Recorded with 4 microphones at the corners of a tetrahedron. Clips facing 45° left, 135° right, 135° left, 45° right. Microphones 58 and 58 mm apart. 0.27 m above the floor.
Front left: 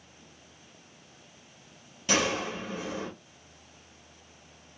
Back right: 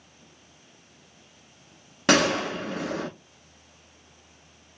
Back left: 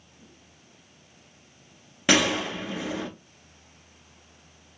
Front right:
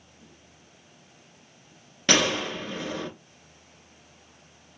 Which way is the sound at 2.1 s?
145° right.